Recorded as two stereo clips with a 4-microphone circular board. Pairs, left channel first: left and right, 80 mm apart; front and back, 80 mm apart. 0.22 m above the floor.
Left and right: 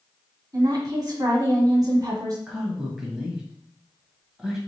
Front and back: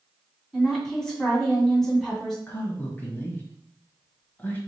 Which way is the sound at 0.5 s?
85° right.